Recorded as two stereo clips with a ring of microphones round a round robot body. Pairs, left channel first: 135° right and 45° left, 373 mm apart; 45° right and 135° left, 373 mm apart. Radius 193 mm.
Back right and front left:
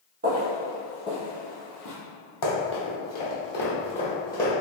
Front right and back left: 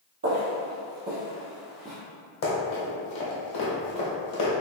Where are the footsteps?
95° left, 1.0 m; by 2.0 s 145° right, 1.2 m.